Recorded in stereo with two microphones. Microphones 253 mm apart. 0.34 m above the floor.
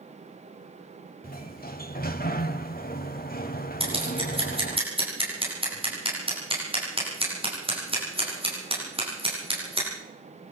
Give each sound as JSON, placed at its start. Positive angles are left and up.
{"t": 1.2, "sound": "a sliding door", "side_deg": 35, "distance_m": 1.2}
{"t": 3.8, "sound": "scissors", "side_deg": -20, "distance_m": 9.0}